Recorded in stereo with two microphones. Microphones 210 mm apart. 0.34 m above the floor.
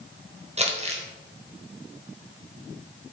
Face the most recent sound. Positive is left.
turn(degrees=-30)  # may be behind; listen again after turning